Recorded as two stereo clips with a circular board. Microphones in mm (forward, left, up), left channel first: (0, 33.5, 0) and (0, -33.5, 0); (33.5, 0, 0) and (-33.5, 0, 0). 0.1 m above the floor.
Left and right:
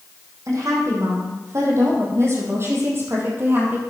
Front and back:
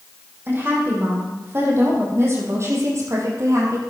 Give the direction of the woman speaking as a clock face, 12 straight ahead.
4 o'clock.